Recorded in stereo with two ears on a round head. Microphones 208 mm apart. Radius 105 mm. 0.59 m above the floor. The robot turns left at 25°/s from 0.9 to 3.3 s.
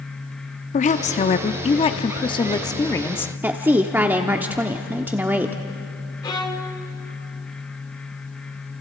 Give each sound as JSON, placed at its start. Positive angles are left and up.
{"t": 0.7, "sound": "a woman speaking", "azimuth_deg": 75, "distance_m": 0.6}
{"t": 3.4, "sound": "a woman speaking", "side_deg": -10, "distance_m": 0.9}
{"t": 6.2, "sound": "a violin", "side_deg": 20, "distance_m": 1.5}